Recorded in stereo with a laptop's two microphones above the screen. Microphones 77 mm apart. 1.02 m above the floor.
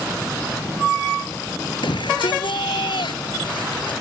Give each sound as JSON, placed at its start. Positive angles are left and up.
{"t": 1.8, "sound": "a shout", "side_deg": 85}